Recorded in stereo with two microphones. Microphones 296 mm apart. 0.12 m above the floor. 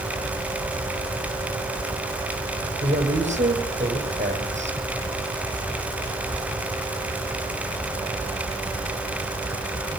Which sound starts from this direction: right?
A woman speaking, at 2.8 s.